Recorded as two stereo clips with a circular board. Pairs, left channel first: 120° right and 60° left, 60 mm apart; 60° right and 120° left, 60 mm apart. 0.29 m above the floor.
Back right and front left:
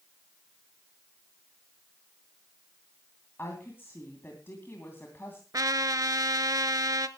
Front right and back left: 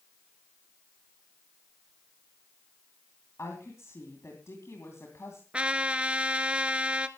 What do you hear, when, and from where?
3.4 s a woman speaking: 75° right, 2.5 m
5.5 s a trumpet: 50° left, 0.7 m